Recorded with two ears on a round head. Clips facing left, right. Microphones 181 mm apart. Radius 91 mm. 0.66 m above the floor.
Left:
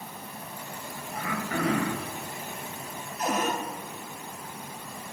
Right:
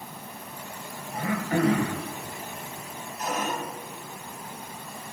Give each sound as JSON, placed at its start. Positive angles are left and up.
{"t": 1.1, "sound": "throat clearing", "side_deg": -30, "distance_m": 1.8}
{"t": 3.2, "sound": "a cupboard door", "side_deg": 60, "distance_m": 4.5}